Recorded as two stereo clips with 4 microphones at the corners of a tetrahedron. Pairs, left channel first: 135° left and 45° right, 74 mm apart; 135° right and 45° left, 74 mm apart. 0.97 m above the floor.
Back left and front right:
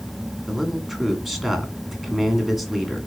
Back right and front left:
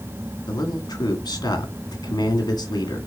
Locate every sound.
0.5 s a man speaking: 140° right, 2.5 m